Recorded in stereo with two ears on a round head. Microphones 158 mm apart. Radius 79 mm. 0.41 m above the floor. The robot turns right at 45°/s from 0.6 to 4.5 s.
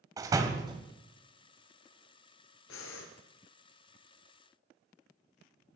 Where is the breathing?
80° left, 2 m.